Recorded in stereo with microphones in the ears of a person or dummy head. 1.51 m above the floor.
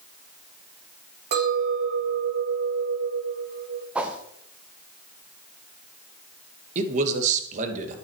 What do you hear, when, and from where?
1.3 s a clink: 55° right (ahead or behind), 1.7 m
4.0 s a whoosh: 5° right (ahead or behind), 0.8 m
6.8 s a man speaking: 45° right (ahead or behind), 2 m